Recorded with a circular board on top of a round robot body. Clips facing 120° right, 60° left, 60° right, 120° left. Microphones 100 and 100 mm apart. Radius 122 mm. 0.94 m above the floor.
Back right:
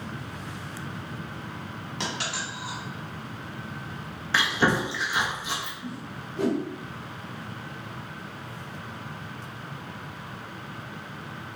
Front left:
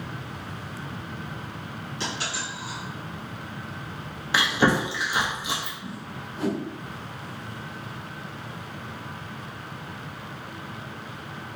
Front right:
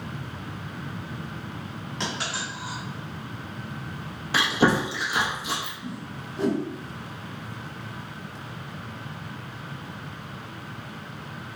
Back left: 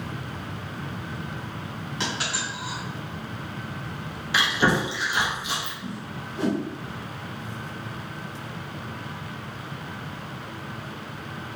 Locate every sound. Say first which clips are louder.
2.0 s a dropped coin: even, back left 1 dB; 150° right, 1.6 m
4.3 s chewing: front left 2 dB, front right 1 dB; 15° right, 1.2 m
5.8 s a whoosh: even, back left 1 dB; 145° right, 1.6 m